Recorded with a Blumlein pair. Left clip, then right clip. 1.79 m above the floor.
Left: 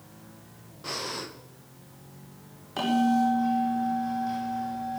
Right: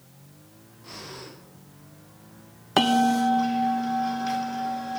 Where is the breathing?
30° left, 1.9 m.